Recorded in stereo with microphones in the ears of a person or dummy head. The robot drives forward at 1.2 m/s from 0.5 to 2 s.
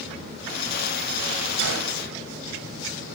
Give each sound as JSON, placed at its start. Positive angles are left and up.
{"t": 1.6, "sound": "a gunshot", "side_deg": -75, "distance_m": 2.0}